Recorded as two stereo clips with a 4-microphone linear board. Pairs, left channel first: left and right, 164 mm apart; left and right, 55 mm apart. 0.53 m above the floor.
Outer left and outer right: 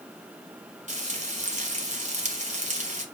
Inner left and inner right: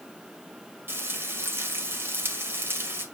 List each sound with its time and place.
0.9 s frying: 45° right (ahead or behind), 1.8 m